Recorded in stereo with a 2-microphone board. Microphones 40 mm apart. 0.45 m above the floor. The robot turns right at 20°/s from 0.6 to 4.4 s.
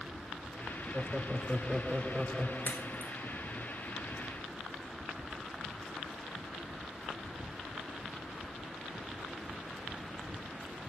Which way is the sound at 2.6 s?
50° left (ahead or behind).